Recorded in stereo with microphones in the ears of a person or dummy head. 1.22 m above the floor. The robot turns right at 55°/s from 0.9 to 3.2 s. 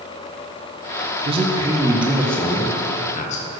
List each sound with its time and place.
1.2 s a man speaking: 50° right, 0.8 m; by 3.4 s 60° left, 0.8 m